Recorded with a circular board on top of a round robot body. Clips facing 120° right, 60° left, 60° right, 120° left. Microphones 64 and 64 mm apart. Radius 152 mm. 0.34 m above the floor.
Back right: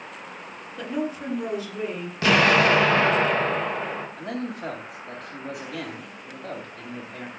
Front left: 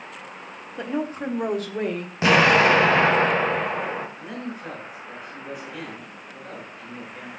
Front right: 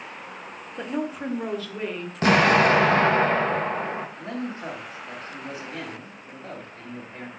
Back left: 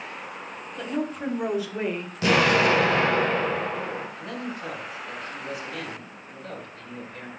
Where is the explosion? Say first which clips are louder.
Front left 2 dB, front right 2 dB; 10° right, 2.5 m.